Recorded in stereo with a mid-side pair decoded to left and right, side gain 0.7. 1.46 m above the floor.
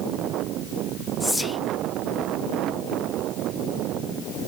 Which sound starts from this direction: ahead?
Whispering, at 1.2 s.